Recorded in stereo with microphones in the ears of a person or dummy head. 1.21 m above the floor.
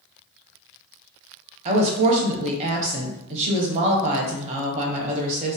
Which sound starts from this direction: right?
A woman speaking, at 1.6 s.